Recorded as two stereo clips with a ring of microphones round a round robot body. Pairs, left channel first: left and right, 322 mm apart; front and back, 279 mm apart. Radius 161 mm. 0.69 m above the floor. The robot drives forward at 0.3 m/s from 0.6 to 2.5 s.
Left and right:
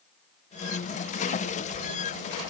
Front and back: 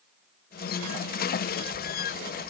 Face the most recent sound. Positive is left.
No sound to turn to.